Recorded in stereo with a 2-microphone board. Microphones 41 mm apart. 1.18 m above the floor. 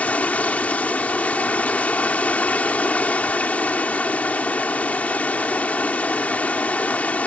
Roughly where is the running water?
Left.